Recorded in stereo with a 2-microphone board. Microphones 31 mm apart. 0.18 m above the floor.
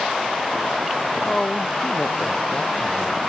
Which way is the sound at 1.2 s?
30° left (ahead or behind).